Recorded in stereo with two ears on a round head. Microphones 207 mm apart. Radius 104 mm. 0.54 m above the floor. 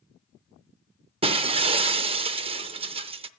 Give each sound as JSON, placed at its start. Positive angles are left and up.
{"t": 1.2, "sound": "breaking glass", "side_deg": -25, "distance_m": 0.5}